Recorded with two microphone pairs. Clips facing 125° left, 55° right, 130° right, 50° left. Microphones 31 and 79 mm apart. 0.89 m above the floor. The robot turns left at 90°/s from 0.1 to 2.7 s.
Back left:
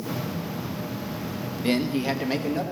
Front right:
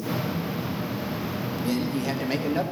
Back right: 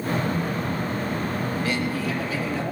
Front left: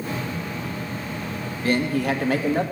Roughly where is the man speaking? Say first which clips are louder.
Back left 4 dB, front left 4 dB; left.